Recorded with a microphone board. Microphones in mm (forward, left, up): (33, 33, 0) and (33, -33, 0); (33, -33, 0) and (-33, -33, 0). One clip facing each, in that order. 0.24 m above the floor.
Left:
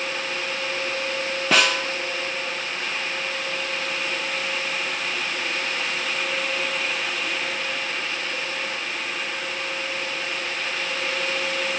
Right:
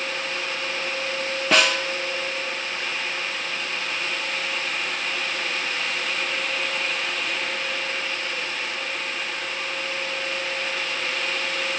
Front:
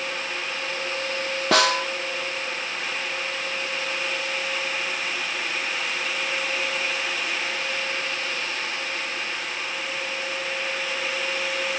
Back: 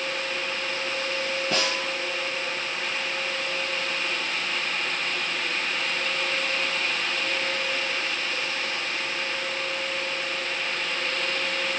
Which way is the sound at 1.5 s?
Straight ahead.